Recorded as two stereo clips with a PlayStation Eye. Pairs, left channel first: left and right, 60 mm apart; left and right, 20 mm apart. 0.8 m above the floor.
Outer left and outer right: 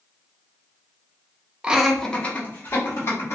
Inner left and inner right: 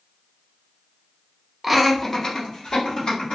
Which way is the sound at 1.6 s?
20° right (ahead or behind).